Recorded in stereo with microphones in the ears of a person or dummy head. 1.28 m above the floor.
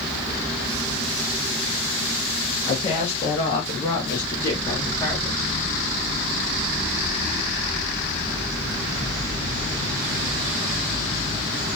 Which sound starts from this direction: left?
A woman speaking, at 2.7 s.